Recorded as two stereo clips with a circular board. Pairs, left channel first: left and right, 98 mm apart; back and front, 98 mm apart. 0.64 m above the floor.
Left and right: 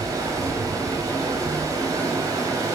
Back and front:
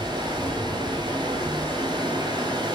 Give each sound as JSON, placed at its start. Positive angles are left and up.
{"t": 0.0, "sound": "running water", "azimuth_deg": -40, "distance_m": 4.0}